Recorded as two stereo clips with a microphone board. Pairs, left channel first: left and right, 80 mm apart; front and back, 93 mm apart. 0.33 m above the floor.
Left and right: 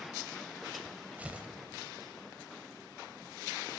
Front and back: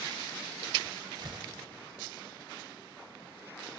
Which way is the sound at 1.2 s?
155° right.